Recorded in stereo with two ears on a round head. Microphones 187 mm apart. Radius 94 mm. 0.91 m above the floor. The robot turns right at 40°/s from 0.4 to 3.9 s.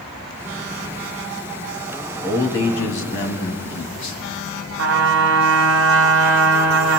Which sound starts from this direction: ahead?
A man speaking, at 2.2 s.